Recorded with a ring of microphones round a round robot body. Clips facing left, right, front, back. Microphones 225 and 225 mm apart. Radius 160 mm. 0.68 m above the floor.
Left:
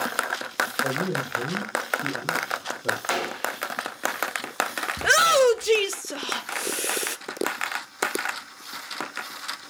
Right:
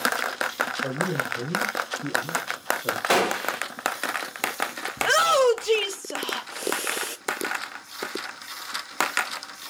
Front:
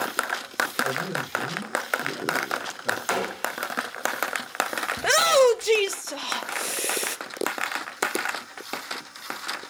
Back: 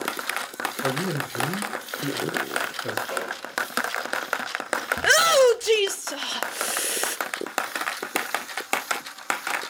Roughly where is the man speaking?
Behind.